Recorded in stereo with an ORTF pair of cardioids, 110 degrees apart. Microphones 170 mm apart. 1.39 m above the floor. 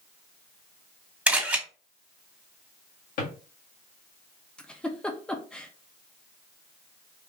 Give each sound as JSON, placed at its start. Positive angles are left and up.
{"t": 1.3, "sound": "a camera shutter", "azimuth_deg": -5, "distance_m": 2.0}
{"t": 3.2, "sound": "a drawer", "azimuth_deg": 65, "distance_m": 1.6}
{"t": 4.6, "sound": "a giggle", "azimuth_deg": 5, "distance_m": 0.6}